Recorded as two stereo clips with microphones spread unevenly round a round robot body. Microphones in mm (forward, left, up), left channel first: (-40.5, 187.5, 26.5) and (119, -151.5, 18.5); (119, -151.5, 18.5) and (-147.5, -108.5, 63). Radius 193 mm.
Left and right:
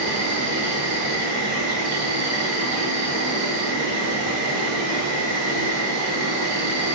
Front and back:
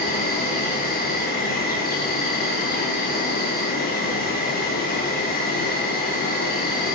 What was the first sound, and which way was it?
An insect, 55° right.